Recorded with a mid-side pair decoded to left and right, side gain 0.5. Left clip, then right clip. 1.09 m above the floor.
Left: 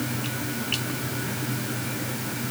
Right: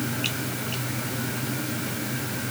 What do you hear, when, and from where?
Only background noise.